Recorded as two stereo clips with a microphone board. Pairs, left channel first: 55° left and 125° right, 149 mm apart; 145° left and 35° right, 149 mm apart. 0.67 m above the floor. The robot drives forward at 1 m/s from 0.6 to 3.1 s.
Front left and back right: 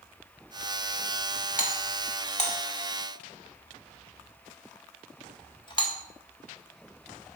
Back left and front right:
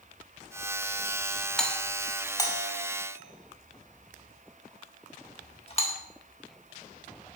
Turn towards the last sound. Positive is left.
turn(degrees=105)